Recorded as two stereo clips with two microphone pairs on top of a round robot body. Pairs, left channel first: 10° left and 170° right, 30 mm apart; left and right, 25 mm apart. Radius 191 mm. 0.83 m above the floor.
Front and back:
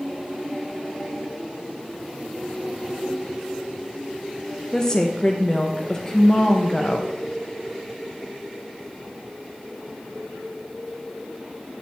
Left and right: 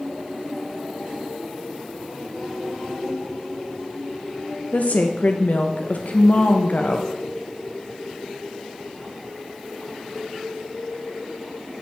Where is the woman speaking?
75° left, 0.7 m.